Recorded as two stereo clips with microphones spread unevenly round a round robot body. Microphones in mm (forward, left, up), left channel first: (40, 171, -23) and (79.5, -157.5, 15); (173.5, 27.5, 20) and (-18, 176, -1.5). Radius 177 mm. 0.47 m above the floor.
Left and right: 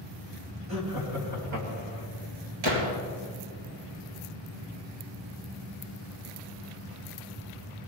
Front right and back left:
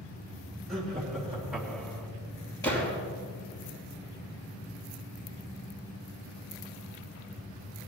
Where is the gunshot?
120° right, 2.5 m.